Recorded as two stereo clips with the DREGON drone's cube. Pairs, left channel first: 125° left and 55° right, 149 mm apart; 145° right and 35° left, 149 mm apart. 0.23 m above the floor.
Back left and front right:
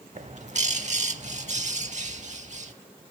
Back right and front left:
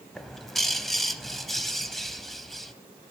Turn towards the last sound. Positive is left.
turn(degrees=-55)